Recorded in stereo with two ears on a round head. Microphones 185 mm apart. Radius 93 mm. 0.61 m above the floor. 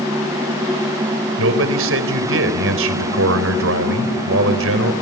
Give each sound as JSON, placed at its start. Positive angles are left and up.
{"t": 1.4, "sound": "a man speaking", "side_deg": -65, "distance_m": 3.5}